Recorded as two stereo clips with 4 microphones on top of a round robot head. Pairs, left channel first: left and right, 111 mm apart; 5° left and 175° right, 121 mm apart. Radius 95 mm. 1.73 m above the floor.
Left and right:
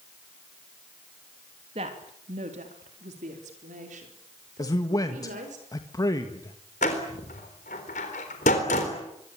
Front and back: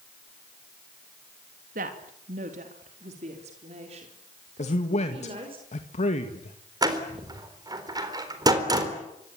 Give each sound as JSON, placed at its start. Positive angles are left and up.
{"t": 1.8, "sound": "a woman speaking", "azimuth_deg": -145, "distance_m": 3.0}
{"t": 4.6, "sound": "a man speaking", "azimuth_deg": 30, "distance_m": 1.8}
{"t": 6.8, "sound": "a door slam", "azimuth_deg": 130, "distance_m": 4.0}